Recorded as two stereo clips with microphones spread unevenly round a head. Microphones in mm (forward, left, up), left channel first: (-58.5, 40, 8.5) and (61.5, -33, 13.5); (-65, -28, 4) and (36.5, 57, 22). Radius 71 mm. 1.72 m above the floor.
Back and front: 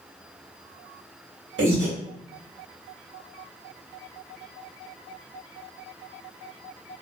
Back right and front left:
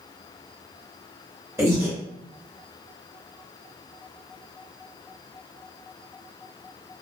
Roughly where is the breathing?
Ahead right.